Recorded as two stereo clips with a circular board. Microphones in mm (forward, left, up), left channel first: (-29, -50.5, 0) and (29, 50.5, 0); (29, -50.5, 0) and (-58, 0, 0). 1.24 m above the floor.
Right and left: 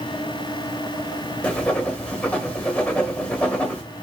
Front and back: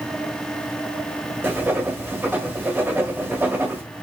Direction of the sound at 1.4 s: 175° left.